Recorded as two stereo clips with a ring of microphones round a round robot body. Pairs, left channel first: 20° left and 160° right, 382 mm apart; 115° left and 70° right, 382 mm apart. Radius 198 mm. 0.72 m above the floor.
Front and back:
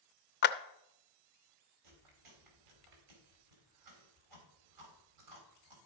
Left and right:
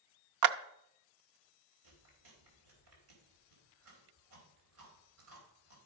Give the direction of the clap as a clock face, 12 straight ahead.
1 o'clock.